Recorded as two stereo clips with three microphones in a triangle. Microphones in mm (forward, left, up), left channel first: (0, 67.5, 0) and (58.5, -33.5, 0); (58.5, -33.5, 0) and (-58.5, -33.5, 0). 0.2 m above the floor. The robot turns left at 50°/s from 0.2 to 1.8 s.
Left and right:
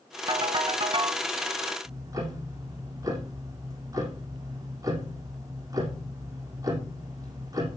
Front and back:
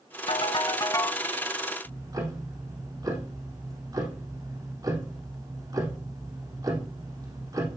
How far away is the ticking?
About 4 m.